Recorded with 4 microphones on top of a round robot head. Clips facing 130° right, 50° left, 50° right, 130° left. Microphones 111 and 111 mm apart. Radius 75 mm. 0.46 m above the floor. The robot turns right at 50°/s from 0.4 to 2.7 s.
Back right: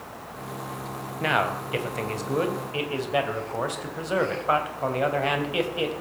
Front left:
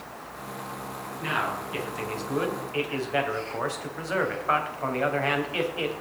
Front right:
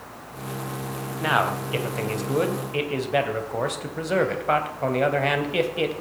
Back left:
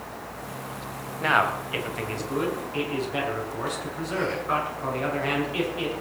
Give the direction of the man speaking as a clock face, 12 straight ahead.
5 o'clock.